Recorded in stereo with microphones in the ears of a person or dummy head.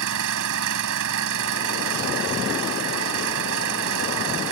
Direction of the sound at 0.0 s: 70° right (ahead or behind).